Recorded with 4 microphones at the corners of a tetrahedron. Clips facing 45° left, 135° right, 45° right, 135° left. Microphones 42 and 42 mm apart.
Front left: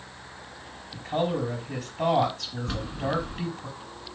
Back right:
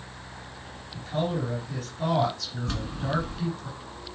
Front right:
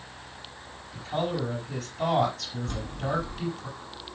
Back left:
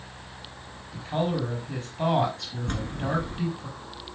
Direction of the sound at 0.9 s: 70° left.